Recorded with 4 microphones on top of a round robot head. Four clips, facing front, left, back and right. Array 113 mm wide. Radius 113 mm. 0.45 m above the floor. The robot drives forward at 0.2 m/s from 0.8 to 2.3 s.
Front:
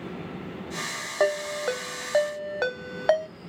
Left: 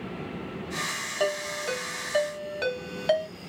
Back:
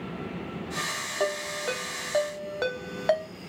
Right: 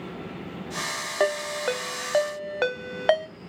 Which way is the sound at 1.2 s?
60° right.